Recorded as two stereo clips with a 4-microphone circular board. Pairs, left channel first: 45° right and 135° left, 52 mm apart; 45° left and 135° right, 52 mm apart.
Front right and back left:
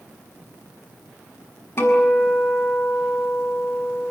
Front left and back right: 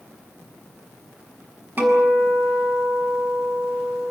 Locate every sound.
1.8 s a guitar: 85° right, 6.5 m